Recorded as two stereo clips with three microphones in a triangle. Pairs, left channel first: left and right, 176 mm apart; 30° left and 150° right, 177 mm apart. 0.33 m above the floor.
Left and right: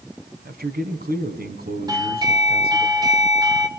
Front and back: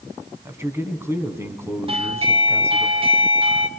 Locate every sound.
0.5 s a man speaking: 75° right, 3 m
1.9 s a doorbell: 135° right, 2 m